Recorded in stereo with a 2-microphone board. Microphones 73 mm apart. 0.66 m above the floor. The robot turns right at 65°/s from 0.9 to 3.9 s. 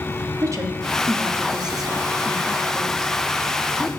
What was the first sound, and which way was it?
A woman speaking, 45° right (ahead or behind).